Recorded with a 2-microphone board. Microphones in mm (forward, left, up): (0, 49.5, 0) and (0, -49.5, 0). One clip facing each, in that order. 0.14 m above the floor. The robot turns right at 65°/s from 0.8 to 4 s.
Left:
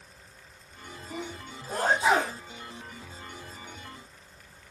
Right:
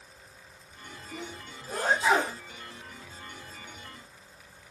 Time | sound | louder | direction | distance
1.1 | a sneeze | left 3 dB | 70° left (ahead or behind) | 5.5 m